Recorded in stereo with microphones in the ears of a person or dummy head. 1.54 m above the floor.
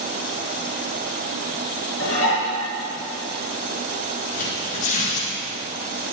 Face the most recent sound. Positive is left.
turn(degrees=40)  # may be behind; listen again after turning